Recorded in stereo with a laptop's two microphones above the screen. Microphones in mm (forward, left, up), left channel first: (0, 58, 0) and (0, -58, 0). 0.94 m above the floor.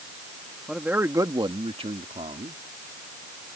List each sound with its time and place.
0.7 s a man speaking: 5° right (ahead or behind); by 2.6 s 75° right (ahead or behind)